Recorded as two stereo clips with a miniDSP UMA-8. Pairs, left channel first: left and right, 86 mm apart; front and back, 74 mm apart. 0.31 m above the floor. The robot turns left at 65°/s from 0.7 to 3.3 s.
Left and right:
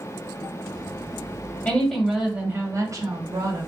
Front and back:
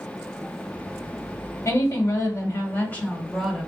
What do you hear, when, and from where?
1.6 s a woman speaking: 25° left, 1.3 m; by 3.7 s 85° right, 1.3 m